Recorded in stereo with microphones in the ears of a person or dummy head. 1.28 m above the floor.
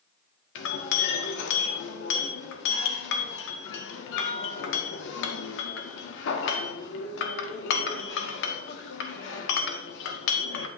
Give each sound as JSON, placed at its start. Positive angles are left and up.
{"t": 0.6, "sound": "a clink", "side_deg": 75, "distance_m": 1.4}